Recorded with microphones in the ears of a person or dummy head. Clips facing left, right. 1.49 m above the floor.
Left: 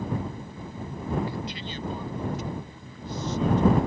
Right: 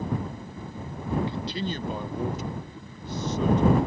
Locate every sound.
1.3 s a man speaking: 20° right (ahead or behind); by 3.8 s 80° right